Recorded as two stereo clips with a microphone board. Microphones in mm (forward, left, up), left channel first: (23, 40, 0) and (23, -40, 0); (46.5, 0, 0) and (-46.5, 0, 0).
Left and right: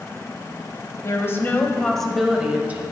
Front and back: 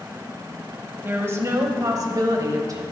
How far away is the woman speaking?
About 1.3 m.